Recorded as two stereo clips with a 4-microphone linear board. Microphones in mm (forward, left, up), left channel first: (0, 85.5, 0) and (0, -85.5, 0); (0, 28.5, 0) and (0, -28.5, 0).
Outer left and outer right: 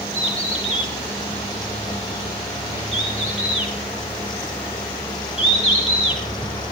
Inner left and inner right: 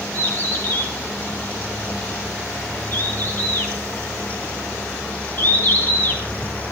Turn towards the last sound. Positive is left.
turn(degrees=35)  # may be behind; listen again after turning